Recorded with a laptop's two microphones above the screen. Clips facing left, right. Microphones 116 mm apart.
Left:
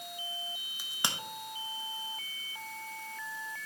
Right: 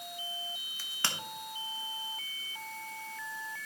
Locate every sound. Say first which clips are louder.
0.8 s a crack: left 1 dB; 15° left (ahead or behind), 1.2 m